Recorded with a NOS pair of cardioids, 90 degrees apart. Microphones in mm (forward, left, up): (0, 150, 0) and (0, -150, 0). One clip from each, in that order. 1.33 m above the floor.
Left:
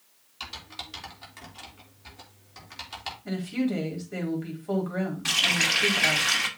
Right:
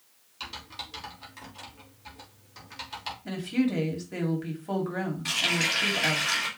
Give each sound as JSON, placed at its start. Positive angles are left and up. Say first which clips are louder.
{"t": 0.4, "sound": "typing on a keyboard", "louder": "even", "azimuth_deg": 15, "distance_m": 3.0}
{"t": 3.2, "sound": "a woman speaking", "louder": "right 1 dB", "azimuth_deg": -15, "distance_m": 3.5}
{"t": 5.2, "sound": "a running tap", "louder": "left 3 dB", "azimuth_deg": 35, "distance_m": 1.8}